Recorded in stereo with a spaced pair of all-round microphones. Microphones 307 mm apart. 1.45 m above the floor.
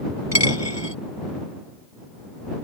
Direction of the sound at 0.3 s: 60° left (ahead or behind).